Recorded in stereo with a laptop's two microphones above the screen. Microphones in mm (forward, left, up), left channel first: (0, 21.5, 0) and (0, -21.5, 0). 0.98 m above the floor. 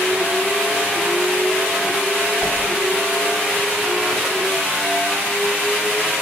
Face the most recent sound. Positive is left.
turn(degrees=0)  # may be behind; listen again after turning